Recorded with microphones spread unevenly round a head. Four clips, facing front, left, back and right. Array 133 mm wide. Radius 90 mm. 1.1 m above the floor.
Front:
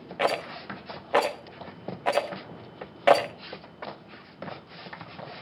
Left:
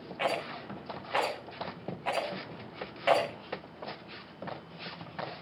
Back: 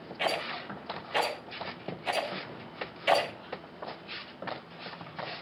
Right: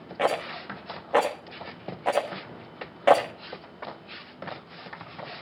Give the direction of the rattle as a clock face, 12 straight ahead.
2 o'clock.